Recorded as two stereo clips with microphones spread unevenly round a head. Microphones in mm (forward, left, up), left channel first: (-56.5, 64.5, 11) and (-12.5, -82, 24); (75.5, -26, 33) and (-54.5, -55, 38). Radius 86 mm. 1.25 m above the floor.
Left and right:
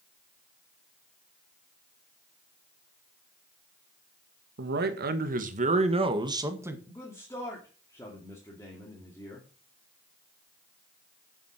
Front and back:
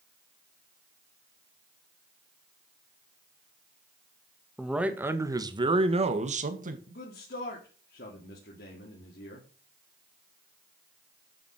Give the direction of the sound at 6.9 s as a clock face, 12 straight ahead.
11 o'clock.